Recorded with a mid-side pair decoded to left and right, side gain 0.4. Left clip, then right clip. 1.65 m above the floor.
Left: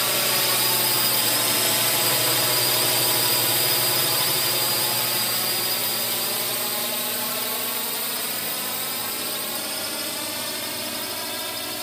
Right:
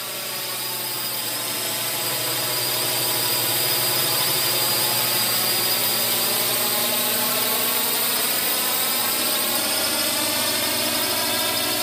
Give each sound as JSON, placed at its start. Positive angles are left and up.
{"t": 0.0, "sound": "a drone", "azimuth_deg": 60}